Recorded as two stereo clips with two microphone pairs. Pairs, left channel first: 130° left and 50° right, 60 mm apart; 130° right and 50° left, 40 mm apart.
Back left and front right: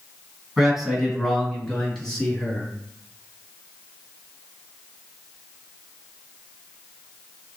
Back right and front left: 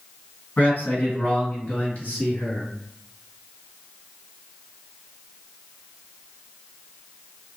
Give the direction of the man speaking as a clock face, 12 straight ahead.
5 o'clock.